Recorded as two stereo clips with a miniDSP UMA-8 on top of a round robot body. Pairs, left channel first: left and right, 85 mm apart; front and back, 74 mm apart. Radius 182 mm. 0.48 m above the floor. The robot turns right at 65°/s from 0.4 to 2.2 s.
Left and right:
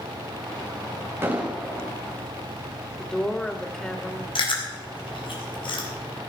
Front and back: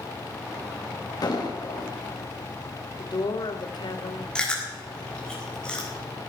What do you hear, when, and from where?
1.2 s an explosion: 25° right, 3.5 m; by 1.9 s 15° left, 3.5 m
3.0 s a woman speaking: 5° left, 1.9 m
4.3 s chewing: 80° left, 4 m